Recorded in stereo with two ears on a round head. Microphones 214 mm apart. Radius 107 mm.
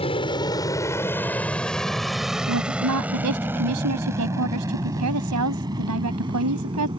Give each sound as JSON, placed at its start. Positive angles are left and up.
{"t": 0.0, "sound": "an aircraft", "side_deg": 25}
{"t": 2.5, "sound": "a woman speaking", "side_deg": -80}